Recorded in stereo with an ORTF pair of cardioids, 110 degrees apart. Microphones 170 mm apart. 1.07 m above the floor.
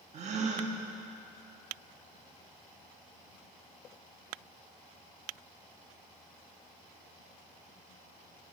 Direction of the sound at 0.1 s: 45° right.